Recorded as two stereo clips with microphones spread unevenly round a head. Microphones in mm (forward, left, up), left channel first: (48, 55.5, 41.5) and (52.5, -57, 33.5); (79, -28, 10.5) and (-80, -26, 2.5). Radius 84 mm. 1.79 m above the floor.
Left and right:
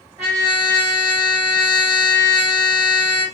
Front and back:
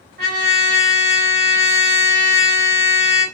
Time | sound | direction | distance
0.2 | a trumpet | 165° right | 1.2 m